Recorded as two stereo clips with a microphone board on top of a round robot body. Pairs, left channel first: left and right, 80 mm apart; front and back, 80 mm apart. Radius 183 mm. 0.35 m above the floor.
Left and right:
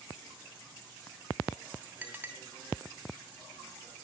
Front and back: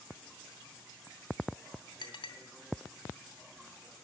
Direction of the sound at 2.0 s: 20° right.